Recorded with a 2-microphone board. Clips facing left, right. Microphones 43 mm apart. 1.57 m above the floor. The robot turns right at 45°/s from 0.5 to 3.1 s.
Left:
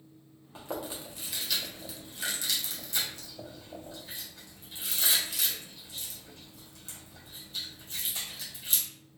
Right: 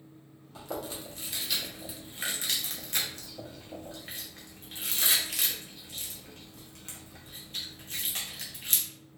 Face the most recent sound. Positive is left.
turn(degrees=-55)  # may be behind; listen again after turning